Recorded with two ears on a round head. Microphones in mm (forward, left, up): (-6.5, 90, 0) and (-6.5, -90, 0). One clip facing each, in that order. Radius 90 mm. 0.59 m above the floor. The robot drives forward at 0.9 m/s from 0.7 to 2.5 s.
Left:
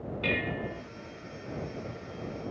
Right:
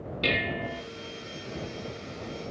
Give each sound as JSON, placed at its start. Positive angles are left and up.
{"t": 0.2, "sound": "dishes clattering", "side_deg": -50, "distance_m": 0.9}